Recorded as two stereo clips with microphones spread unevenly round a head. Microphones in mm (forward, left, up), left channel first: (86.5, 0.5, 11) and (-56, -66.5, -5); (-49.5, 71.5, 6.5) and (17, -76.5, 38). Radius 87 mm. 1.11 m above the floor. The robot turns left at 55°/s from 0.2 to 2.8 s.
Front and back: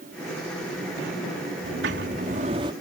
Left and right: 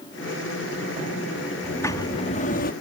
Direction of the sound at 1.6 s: 160° right.